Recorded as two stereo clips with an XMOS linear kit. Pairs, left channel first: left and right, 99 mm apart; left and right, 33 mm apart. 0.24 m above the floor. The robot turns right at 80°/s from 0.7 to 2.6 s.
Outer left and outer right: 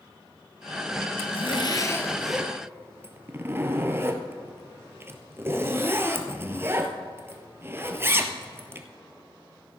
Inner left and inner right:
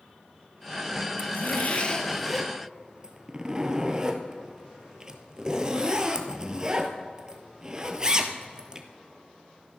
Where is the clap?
No clap in this recording.